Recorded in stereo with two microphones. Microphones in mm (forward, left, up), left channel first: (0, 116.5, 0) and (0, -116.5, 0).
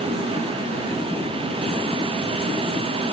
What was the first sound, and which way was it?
Only background noise.